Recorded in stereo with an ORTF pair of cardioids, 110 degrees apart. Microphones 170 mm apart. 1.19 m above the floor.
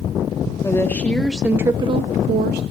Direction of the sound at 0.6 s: 15° left.